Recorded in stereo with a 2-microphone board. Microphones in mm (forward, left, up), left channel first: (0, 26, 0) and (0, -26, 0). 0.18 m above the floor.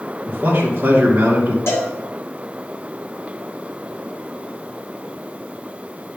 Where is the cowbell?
60° left (ahead or behind), 3.5 m.